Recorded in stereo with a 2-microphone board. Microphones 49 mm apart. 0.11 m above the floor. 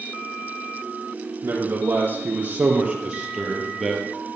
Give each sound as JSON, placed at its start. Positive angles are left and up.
{"t": 1.4, "sound": "a man speaking", "side_deg": -40, "distance_m": 3.5}